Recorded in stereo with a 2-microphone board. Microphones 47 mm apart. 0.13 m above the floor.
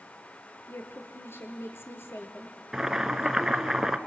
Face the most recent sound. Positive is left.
turn(degrees=-10)  # may be behind; listen again after turning